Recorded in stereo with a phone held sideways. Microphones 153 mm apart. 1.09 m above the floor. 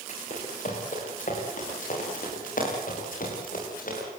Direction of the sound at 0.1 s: 55° left (ahead or behind).